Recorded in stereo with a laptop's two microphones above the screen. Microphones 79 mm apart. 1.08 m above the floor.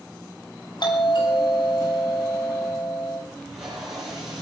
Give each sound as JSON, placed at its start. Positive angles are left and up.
{"t": 0.8, "sound": "a doorbell", "side_deg": 75, "distance_m": 9.5}
{"t": 3.3, "sound": "tape being pulled", "side_deg": -5, "distance_m": 7.5}